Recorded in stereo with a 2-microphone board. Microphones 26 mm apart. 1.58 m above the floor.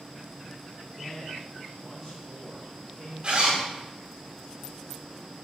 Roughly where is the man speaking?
Centre.